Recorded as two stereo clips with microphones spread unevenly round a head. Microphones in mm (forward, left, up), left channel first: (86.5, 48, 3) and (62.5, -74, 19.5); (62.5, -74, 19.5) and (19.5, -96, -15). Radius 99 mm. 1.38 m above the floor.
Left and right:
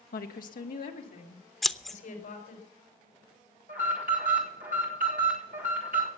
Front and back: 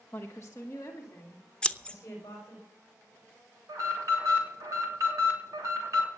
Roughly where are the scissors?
Ahead.